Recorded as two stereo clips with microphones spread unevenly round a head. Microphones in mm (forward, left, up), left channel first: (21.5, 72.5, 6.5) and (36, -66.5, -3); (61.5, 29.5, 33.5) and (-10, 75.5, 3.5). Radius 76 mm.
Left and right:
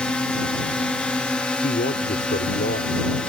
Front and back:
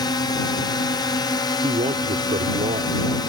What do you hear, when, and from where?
0.0 s a drone: 10° left
1.6 s a man speaking: 130° left